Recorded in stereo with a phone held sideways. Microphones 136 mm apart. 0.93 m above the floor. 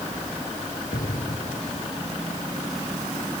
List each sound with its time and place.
0.9 s an explosion: 85° left